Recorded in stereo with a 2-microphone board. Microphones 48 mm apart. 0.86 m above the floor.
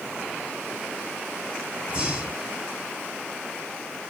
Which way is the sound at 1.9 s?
30° right (ahead or behind).